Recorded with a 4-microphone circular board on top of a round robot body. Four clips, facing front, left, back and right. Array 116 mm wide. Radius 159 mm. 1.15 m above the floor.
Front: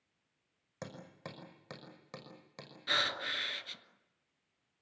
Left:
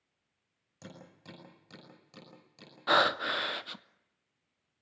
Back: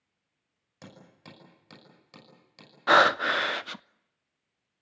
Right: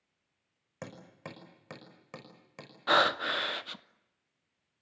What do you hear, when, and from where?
0.8 s hammering: 55° right, 5.5 m
2.9 s breathing: 175° left, 0.5 m